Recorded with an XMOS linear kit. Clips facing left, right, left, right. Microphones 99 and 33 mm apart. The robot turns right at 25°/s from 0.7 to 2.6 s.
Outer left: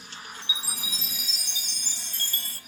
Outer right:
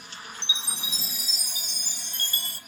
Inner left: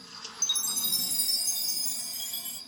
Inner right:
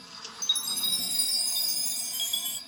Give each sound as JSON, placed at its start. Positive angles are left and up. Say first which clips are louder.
{"t": 0.4, "sound": "a chime", "louder": "outer right 1 dB, inner right 3 dB", "azimuth_deg": -150, "distance_m": 1.0}